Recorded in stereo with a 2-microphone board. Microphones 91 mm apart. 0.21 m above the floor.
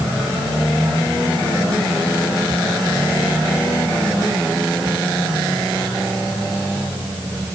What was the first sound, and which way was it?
Only background noise.